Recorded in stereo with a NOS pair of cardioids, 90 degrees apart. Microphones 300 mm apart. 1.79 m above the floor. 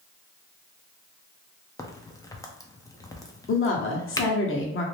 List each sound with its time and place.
1.8 s a crack: 10° left, 0.6 m
3.5 s a woman speaking: 45° left, 1.1 m